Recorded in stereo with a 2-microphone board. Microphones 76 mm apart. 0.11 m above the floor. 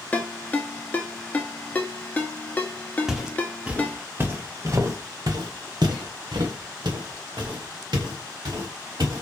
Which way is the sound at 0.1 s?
20° left (ahead or behind).